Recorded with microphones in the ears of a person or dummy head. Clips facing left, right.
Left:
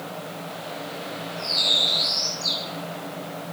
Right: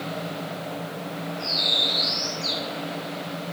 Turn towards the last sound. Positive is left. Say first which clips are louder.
# right 1 dB
turn(degrees=55)  # may be behind; listen again after turning